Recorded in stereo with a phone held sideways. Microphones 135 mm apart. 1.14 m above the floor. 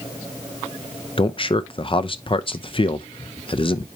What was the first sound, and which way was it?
A man speaking, 40° left (ahead or behind).